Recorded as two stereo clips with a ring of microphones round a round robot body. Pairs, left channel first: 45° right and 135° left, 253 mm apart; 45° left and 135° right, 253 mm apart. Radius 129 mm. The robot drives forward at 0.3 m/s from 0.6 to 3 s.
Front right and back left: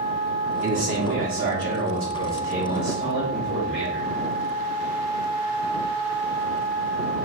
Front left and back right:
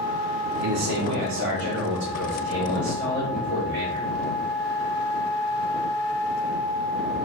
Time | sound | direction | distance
0.6 | a man speaking | 170° right | 0.5 m